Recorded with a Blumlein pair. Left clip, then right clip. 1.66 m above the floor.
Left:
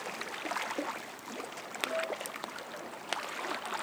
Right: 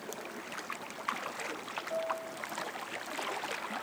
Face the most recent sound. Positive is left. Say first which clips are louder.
# right 3 dB
turn(degrees=0)